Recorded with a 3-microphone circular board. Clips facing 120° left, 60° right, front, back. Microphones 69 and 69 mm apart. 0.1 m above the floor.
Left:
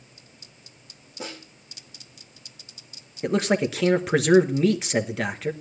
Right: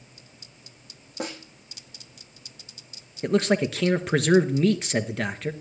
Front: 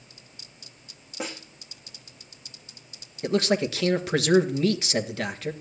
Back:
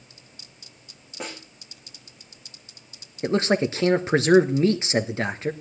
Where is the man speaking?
155° right, 1.4 m.